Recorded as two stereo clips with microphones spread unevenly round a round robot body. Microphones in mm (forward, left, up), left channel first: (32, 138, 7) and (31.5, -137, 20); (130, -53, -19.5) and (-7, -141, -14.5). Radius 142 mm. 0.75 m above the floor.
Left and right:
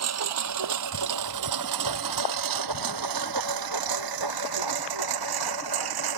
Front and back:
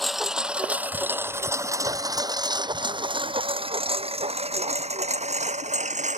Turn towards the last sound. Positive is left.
turn(degrees=-105)